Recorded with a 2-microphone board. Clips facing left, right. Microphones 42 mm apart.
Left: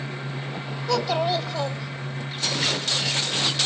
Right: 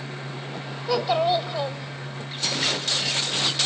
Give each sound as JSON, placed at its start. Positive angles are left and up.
{"t": 0.9, "sound": "a child speaking", "side_deg": -10, "distance_m": 1.3}